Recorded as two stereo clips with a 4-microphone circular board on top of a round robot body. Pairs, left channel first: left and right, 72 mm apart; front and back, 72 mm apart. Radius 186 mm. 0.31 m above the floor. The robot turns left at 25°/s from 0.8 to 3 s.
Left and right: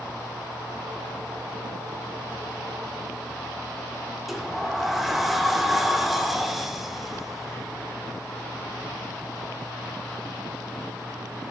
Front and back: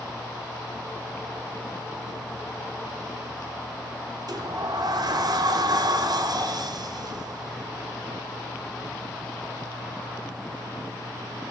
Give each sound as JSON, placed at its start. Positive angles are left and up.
{"t": 4.3, "sound": "a sliding door", "azimuth_deg": 180, "distance_m": 0.8}